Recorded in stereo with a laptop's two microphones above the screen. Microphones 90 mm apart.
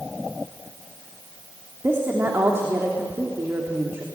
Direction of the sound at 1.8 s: 25° right (ahead or behind).